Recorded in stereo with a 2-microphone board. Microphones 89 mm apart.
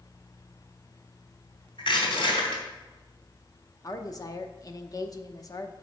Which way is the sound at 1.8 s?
75° left (ahead or behind).